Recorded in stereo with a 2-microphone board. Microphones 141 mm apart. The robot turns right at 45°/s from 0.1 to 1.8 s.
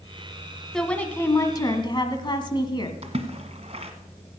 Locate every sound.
0.7 s a woman speaking: 5° left, 1.5 m; by 2.9 s 50° left, 1.5 m
3.0 s a splash: 50° right (ahead or behind), 1.4 m